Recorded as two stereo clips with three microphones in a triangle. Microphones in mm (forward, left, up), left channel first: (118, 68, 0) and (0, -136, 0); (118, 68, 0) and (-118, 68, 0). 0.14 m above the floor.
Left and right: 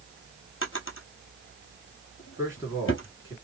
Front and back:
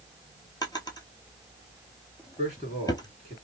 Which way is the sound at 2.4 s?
175° left.